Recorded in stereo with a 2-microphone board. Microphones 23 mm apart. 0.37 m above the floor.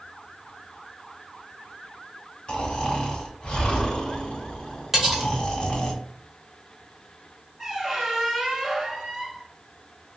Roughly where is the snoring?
Left.